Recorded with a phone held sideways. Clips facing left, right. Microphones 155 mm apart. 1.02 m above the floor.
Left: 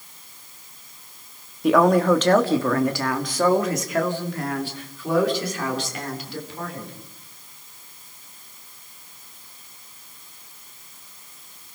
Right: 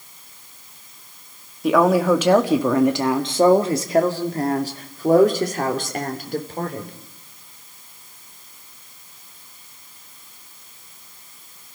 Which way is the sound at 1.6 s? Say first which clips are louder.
Even; centre (ahead or behind).